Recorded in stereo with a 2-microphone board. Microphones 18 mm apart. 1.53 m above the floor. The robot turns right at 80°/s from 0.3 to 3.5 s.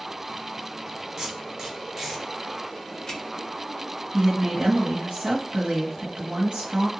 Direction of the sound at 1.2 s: 40° right (ahead or behind).